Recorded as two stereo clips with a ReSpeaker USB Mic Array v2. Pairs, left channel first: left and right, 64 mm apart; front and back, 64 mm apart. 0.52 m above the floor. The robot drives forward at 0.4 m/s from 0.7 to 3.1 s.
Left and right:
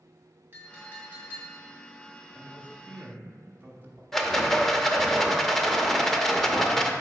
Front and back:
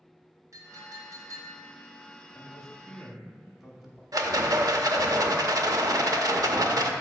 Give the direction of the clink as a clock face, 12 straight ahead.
5 o'clock.